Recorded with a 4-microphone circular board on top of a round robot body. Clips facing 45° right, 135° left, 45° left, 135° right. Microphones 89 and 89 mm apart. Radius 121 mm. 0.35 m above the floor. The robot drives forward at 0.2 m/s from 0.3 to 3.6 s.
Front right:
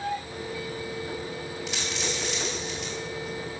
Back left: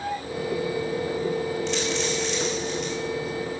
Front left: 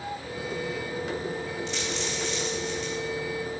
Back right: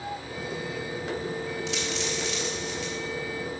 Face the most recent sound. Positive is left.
turn(degrees=-135)